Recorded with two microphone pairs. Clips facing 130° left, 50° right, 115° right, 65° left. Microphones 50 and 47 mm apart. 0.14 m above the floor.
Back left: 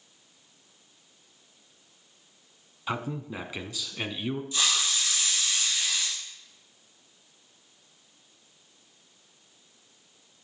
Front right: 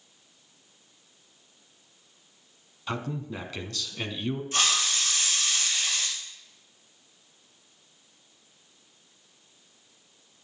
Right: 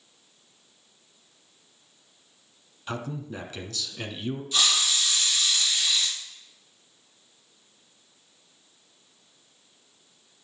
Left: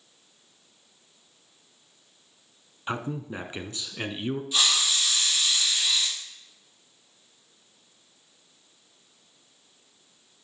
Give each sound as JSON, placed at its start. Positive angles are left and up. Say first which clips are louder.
{"t": 2.9, "sound": "a man speaking", "louder": "back left 1 dB, left 2 dB", "azimuth_deg": 65, "distance_m": 1.1}
{"t": 4.5, "sound": "a hiss", "louder": "front right 3 dB, right 1 dB", "azimuth_deg": -15, "distance_m": 3.5}